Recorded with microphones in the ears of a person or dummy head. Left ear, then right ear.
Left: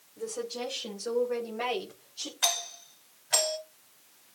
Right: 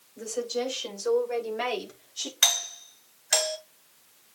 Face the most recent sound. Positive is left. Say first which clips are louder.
# right 5 dB
turn(degrees=-75)  # may be behind; listen again after turning